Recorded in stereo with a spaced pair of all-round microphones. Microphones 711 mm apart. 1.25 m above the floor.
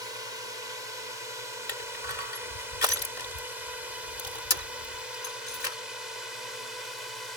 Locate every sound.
0.0 s a drone: 70° left (ahead or behind); by 7.4 s 80° left
1.7 s crushing: 80° left